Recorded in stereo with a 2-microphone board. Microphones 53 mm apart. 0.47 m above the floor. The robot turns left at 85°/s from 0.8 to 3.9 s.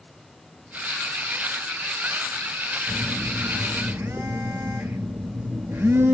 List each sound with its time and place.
2.9 s a phone buzzing: 35° right, 0.6 m; by 6.1 s 125° right, 0.6 m